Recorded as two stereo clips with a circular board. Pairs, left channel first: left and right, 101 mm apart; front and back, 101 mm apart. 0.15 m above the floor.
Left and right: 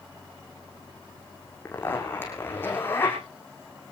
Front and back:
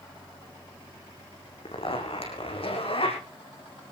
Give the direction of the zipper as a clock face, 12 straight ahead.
11 o'clock.